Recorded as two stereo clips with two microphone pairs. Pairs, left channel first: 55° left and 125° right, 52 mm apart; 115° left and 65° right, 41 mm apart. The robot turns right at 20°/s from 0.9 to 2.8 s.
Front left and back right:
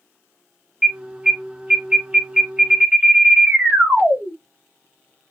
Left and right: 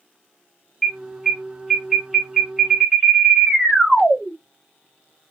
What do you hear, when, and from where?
0.8 s an alarm: 155° right, 1.1 m; by 4.3 s 115° right, 1.1 m